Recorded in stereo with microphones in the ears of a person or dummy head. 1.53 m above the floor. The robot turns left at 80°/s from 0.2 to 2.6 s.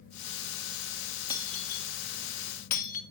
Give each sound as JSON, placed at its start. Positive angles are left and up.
{"t": 1.3, "sound": "breaking glass", "side_deg": 20, "distance_m": 1.9}